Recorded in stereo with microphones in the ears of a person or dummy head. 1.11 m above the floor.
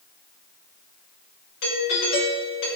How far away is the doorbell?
About 5.5 m.